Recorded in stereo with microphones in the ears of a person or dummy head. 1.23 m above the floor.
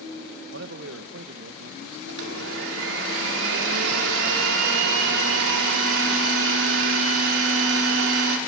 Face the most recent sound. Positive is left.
turn(degrees=-70)  # may be behind; listen again after turning